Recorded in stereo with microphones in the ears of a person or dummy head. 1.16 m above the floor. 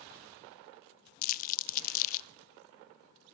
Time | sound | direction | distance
1.2 | crumpling | 45° left (ahead or behind) | 0.5 m